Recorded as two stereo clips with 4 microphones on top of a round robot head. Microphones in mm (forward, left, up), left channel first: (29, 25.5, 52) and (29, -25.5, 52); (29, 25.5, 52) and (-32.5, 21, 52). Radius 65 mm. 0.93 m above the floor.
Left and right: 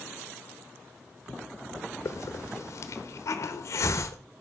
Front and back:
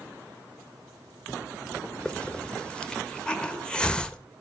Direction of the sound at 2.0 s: 80° left.